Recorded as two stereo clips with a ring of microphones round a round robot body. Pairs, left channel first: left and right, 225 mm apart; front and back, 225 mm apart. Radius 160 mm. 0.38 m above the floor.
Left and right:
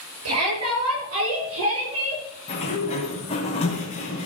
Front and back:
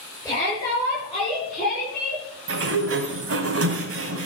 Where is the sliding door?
160° left, 1.9 m.